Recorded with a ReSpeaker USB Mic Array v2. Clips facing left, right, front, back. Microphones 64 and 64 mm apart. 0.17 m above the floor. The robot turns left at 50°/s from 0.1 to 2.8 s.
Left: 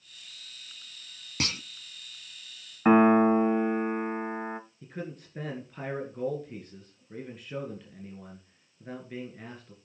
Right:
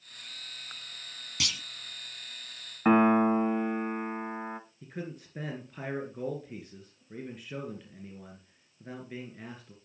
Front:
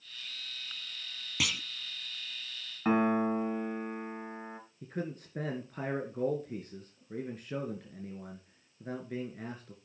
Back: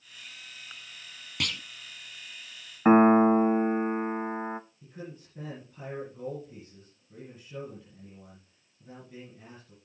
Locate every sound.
1.4 s a clunk: 85° left, 0.5 m; by 1.6 s 75° left, 0.5 m
2.9 s a piano: 170° left, 0.7 m
4.8 s a man speaking: straight ahead, 2 m